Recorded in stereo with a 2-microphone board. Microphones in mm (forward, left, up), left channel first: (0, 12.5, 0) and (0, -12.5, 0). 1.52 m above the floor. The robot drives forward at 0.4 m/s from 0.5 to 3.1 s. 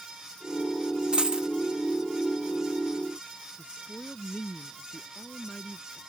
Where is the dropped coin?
40° right (ahead or behind).